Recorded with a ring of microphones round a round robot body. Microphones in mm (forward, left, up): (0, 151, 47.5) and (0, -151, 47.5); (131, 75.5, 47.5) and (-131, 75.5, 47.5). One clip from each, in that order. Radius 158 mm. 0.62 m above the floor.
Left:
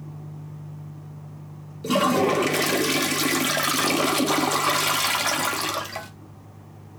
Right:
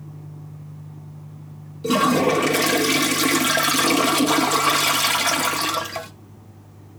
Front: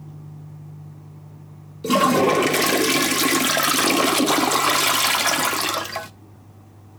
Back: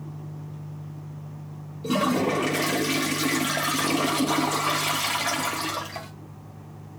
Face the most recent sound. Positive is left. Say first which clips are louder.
# right 2 dB, front 7 dB
turn(degrees=0)